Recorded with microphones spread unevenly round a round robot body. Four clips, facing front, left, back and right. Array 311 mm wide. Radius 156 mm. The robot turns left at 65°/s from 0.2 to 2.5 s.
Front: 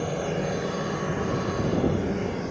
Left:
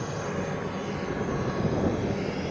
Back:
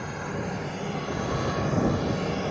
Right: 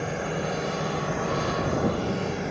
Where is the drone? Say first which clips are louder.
Right 2 dB, front 5 dB; 20° right; by 2.5 s 170° right.